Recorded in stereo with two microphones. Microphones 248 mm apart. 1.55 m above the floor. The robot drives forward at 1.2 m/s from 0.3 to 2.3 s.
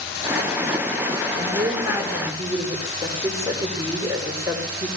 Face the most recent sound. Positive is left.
turn(degrees=-15)  # may be behind; listen again after turning